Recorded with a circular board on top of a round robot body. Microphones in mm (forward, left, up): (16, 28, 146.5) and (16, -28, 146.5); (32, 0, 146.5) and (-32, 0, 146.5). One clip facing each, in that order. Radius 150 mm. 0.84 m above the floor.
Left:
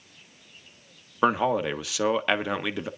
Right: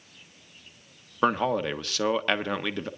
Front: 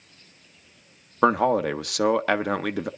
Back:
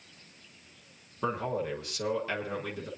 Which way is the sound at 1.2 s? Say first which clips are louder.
Left 1 dB, front 12 dB; 5° left.